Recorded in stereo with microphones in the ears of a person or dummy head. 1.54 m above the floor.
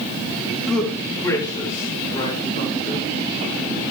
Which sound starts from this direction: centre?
A man speaking, at 0.7 s.